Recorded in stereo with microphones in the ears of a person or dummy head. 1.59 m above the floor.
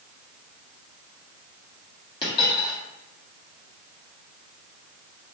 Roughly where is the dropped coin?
Left.